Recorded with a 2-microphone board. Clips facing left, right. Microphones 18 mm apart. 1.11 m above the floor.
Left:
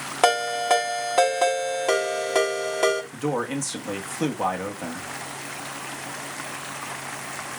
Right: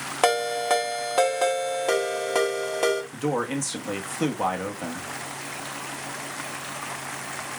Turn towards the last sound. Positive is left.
turn(degrees=-10)  # may be behind; listen again after turning